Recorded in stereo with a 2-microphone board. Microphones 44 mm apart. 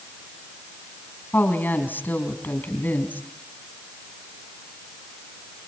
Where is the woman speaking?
50° left (ahead or behind), 3.5 m.